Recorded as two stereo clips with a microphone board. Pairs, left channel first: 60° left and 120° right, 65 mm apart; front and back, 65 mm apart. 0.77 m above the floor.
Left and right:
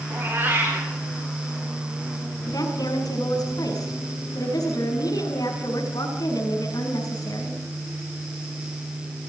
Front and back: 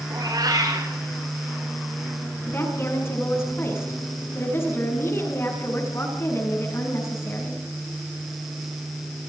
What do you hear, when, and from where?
0.1 s a cat meowing: straight behind, 9 m
2.5 s a woman speaking: 50° left, 7.5 m